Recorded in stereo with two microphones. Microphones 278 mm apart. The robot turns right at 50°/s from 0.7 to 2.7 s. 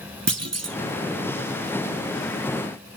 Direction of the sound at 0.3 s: 60° right (ahead or behind).